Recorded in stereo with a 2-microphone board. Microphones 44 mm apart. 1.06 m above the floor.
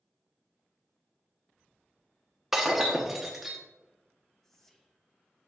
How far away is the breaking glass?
About 0.9 m.